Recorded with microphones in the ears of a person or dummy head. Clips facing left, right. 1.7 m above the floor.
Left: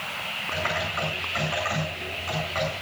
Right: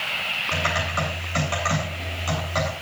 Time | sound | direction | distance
0.5 | typing on a keyboard | 50° right (ahead or behind) | 8 m